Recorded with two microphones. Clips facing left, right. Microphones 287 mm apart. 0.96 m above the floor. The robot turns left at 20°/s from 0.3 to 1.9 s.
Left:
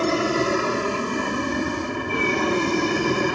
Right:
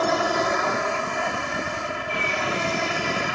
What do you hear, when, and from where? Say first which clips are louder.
0.0 s an aircraft: left 3 dB; 145° left; by 3.4 s 110° left